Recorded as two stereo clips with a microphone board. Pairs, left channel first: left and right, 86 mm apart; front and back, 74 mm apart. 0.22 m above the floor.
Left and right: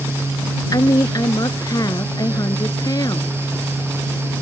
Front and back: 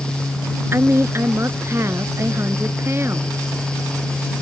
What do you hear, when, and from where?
0.7 s a woman speaking: 130° left